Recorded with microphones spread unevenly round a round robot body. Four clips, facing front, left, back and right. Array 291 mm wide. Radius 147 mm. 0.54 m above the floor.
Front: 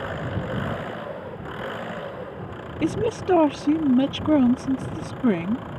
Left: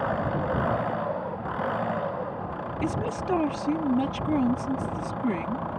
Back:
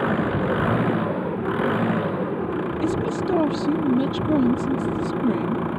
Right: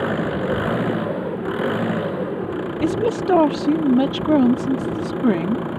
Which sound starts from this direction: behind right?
An engine running, at 0.0 s.